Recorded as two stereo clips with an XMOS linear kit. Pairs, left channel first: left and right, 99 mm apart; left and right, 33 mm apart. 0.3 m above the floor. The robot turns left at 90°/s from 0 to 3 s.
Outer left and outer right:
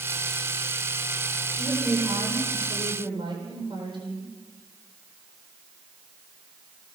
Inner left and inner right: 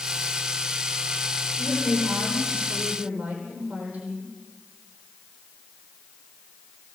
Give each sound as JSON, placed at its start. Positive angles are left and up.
{"t": 1.6, "sound": "a woman speaking", "azimuth_deg": 5, "distance_m": 10.0}